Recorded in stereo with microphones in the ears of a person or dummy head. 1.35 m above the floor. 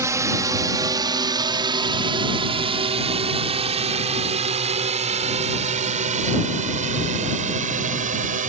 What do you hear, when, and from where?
0.0 s a drone: 15° right (ahead or behind); by 8.5 s 40° right (ahead or behind)